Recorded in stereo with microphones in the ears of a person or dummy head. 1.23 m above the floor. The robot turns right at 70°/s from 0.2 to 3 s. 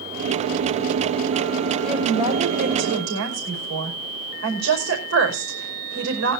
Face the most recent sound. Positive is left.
turn(degrees=-100)